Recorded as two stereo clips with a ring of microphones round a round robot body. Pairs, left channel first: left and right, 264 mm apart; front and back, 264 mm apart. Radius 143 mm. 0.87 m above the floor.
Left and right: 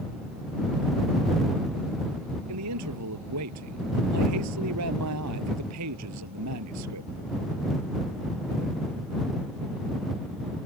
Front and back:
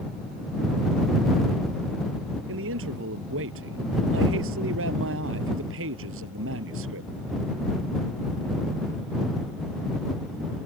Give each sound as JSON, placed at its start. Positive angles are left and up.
{"t": 2.5, "sound": "a man speaking", "azimuth_deg": -130}